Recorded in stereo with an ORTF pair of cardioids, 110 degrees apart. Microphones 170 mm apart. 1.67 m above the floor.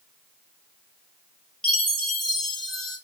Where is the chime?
Straight ahead, 0.8 m.